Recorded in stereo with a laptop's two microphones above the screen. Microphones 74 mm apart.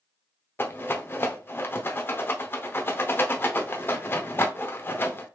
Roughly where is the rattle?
Left.